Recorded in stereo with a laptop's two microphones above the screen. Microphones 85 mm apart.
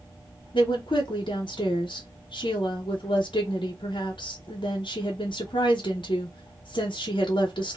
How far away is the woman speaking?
About 0.8 m.